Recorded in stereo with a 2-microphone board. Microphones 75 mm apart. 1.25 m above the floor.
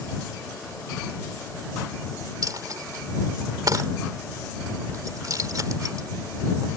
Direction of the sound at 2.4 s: 50° right (ahead or behind).